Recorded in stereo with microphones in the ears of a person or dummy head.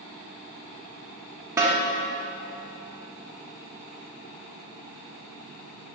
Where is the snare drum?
10° right (ahead or behind), 1.1 m.